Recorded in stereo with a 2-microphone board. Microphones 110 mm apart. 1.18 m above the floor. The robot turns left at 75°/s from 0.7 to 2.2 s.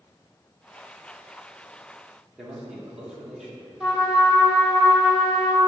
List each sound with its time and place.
2.4 s a man speaking: 5° right (ahead or behind), 1.7 m
3.8 s a trumpet: centre (ahead or behind), 2.5 m